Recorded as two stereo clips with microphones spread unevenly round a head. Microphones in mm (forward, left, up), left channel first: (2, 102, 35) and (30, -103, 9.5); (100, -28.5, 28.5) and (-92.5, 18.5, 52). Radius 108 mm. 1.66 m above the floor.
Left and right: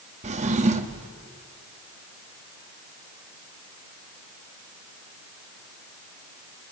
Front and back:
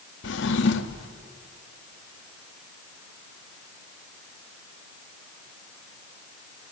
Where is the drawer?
30° right, 1.4 m.